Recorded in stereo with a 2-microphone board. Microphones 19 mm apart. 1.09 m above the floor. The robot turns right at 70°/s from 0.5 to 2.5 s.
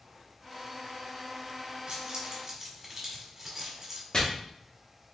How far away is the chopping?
About 1.4 m.